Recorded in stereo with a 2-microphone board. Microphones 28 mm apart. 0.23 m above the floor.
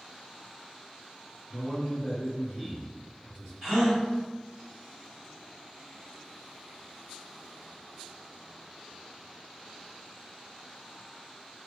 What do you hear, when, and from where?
1.5 s a man speaking: 5° left (ahead or behind), 1.3 m; by 3.5 s 10° left (ahead or behind), 1.5 m
3.6 s a gasp: centre (ahead or behind), 1.9 m